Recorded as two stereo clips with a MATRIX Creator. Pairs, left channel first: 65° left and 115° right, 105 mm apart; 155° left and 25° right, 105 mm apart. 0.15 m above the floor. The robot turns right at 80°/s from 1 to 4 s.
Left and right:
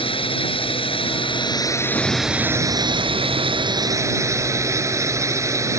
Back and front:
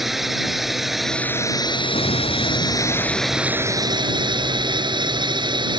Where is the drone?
65° left; by 5.8 s 55° right.